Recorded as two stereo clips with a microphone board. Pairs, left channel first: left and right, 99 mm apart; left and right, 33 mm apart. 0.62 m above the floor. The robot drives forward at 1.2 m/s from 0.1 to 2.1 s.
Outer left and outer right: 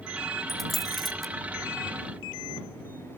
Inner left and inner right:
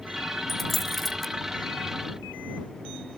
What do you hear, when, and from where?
0.5 s a dropped coin: centre (ahead or behind), 1.7 m